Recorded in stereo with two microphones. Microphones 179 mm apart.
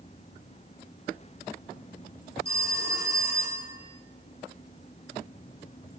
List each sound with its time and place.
2.5 s a phone ringing: 60° left (ahead or behind), 5 m